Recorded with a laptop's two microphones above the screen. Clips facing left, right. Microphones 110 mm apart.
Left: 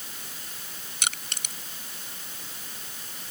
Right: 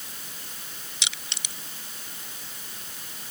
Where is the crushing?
45° left (ahead or behind).